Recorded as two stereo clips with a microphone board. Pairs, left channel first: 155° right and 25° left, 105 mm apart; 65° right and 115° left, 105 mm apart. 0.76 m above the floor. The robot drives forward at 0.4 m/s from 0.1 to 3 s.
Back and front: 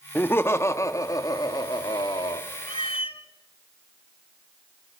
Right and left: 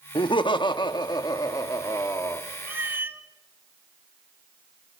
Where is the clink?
I don't hear a clink.